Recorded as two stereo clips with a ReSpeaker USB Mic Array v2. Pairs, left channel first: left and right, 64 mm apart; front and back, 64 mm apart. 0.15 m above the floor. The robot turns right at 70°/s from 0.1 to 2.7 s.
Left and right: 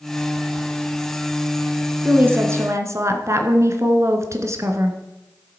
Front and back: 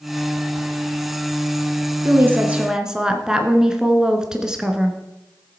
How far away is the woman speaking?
About 1.5 m.